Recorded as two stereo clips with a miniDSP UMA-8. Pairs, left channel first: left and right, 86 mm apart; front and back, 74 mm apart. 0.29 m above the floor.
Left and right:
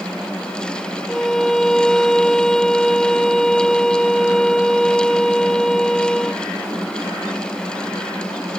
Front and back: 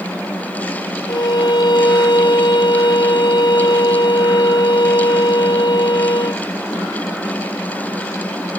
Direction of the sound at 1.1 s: 5° left.